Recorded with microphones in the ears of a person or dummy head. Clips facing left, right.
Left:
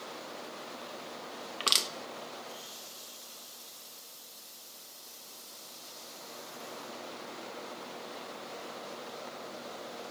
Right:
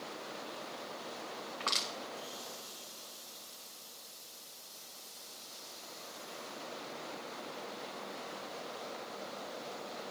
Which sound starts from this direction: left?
Crushing, at 1.6 s.